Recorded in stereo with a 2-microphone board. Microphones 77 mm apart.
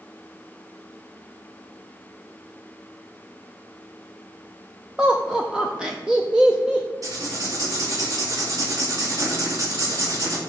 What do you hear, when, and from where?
5.0 s laughter: 15° right (ahead or behind), 0.7 m
7.0 s writing: 45° right (ahead or behind), 2.5 m